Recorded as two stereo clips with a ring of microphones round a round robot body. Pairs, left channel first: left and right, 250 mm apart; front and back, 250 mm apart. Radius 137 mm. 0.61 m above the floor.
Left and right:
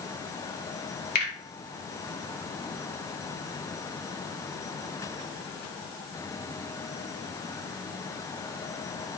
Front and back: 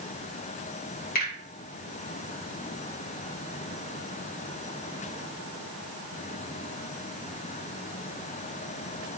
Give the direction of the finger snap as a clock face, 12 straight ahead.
10 o'clock.